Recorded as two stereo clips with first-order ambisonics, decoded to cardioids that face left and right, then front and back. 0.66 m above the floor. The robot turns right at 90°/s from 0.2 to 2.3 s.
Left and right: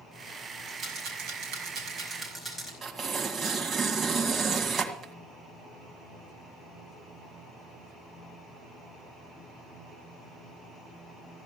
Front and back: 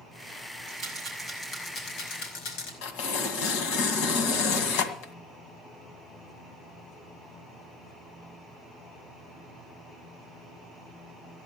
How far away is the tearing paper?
About 2 m.